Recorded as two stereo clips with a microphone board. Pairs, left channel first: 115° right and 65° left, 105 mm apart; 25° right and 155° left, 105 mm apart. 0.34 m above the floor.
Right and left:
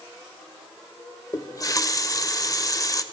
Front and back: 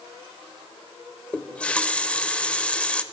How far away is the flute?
I don't hear a flute.